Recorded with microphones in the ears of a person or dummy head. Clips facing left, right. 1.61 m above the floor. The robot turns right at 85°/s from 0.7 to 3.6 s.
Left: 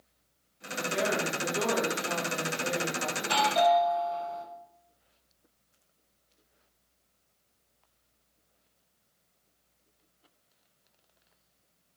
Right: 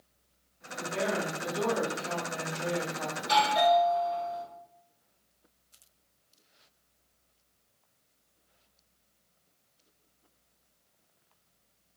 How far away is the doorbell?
About 1.3 m.